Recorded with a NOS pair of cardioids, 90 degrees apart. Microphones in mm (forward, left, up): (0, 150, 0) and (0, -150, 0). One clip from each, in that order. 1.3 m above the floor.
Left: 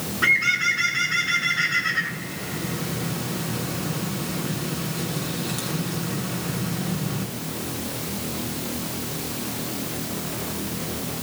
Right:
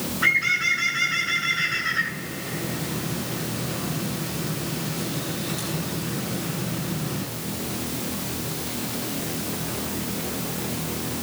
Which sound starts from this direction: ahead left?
A bird, at 0.2 s.